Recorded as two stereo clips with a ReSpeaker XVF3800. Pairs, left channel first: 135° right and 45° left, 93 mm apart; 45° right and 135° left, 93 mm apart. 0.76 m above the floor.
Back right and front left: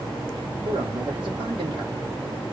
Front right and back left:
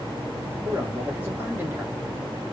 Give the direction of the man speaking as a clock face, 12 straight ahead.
10 o'clock.